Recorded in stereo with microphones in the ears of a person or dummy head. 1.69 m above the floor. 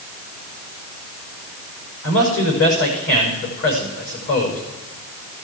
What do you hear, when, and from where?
2.0 s a man speaking: 60° left (ahead or behind), 6.5 m